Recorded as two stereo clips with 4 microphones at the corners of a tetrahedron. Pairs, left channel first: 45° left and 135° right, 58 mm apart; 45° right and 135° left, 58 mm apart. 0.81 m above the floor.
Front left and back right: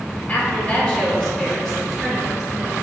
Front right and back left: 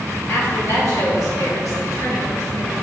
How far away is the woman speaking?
About 3 m.